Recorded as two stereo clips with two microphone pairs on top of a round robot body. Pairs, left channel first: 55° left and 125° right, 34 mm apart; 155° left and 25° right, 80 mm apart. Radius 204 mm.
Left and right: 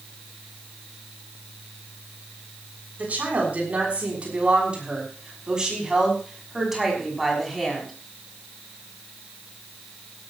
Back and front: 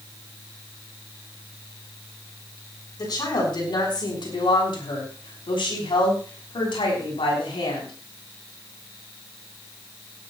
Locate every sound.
3.0 s a woman speaking: 165° right, 6.5 m; by 7.9 s 145° left, 6 m